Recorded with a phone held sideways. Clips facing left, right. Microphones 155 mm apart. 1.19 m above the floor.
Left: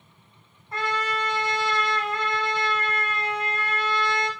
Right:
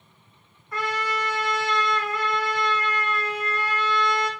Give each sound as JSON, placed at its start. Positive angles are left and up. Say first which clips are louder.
{"t": 0.7, "sound": "a trumpet", "louder": "even", "side_deg": 30, "distance_m": 2.5}